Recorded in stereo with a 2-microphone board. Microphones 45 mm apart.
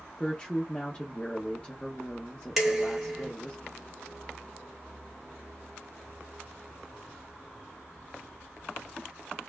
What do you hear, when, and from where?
0.2 s a woman speaking: 20° left (ahead or behind), 0.8 m
2.6 s dishes clattering: 5° right (ahead or behind), 1.6 m